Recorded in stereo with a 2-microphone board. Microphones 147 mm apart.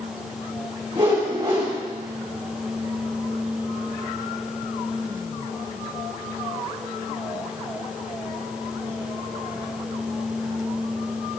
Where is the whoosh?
40° right (ahead or behind), 3.5 m.